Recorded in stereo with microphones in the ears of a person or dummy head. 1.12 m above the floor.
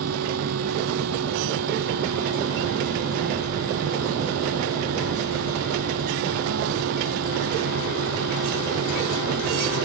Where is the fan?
85° right.